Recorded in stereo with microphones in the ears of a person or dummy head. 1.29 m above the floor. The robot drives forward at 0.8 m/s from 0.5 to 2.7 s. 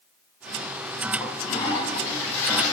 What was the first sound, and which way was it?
A toilet flushing, 20° left (ahead or behind).